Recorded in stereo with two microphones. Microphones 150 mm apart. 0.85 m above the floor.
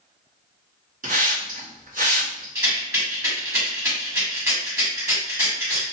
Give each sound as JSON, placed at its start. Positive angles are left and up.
{"t": 1.0, "sound": "a hiss", "side_deg": -60, "distance_m": 1.9}
{"t": 2.5, "sound": "a rattle", "side_deg": -20, "distance_m": 1.8}